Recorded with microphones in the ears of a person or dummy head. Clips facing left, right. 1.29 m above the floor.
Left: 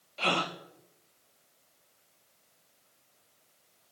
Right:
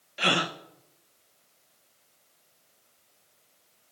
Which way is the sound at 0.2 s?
20° right (ahead or behind).